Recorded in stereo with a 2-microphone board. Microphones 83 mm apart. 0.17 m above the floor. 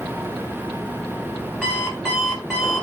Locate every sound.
1.6 s an alarm clock: 10° left (ahead or behind), 1.3 m